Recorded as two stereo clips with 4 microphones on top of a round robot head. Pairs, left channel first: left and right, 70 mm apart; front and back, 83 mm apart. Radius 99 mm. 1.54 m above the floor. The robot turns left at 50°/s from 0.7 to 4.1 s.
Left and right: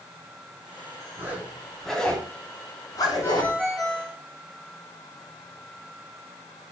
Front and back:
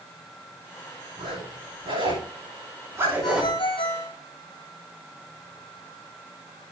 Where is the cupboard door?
No cupboard door in this recording.